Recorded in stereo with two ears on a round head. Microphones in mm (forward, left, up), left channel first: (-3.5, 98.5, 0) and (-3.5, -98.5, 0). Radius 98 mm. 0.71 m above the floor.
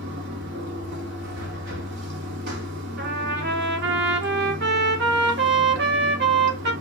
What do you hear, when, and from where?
0.0 s running water: 50° right (ahead or behind), 1.1 m
3.0 s a trumpet: 50° right (ahead or behind), 1.1 m